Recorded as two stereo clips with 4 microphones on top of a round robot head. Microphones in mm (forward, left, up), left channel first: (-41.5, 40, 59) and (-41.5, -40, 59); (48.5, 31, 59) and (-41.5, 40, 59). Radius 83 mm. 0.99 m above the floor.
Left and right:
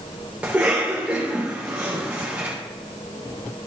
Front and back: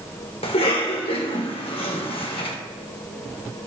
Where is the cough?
15° right, 3 m.